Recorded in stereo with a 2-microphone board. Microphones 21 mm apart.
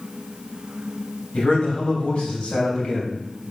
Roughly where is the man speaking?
Left.